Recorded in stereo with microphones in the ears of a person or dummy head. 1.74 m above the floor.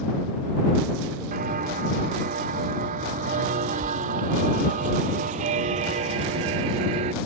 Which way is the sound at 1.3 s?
45° right (ahead or behind).